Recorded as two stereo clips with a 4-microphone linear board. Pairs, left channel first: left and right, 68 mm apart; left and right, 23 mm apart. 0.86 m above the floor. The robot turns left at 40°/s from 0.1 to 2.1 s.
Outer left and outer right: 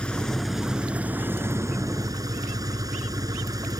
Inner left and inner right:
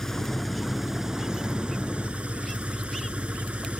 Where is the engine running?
15° left; by 3.8 s 65° right.